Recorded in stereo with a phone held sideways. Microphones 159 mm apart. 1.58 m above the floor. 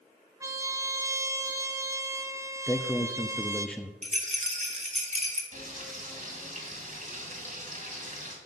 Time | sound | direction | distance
0.4 | a trumpet | 20° right (ahead or behind) | 0.7 m
2.7 | a man speaking | 5° left (ahead or behind) | 0.5 m
4.0 | a rattle | 45° right (ahead or behind) | 1.6 m
5.5 | frying | 55° right (ahead or behind) | 2.5 m